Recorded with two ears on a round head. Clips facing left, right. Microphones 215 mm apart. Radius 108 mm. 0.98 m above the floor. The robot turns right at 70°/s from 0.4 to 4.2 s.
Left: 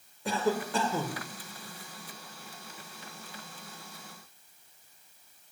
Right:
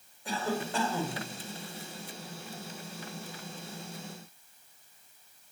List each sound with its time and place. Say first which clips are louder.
0.2 s a cough: left 4 dB; 55° left, 4 m; by 1.2 s 115° left, 4 m